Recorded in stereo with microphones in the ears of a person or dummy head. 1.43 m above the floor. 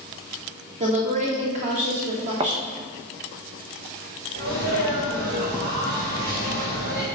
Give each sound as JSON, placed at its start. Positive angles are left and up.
{"t": 0.8, "sound": "a woman speaking", "side_deg": -35, "distance_m": 2.5}
{"t": 2.4, "sound": "a thud", "side_deg": -20, "distance_m": 0.7}
{"t": 4.3, "sound": "a sneeze", "side_deg": -55, "distance_m": 3.5}